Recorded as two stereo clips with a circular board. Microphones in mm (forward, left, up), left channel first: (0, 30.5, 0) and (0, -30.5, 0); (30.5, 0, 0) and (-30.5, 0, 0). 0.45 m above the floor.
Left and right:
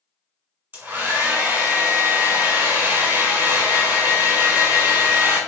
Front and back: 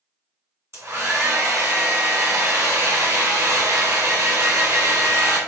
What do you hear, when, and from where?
0.7 s a hair dryer: 145° right, 1.4 m